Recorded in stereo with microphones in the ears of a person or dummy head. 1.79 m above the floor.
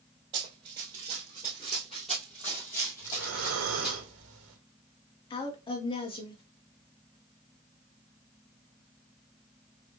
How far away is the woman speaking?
About 0.9 m.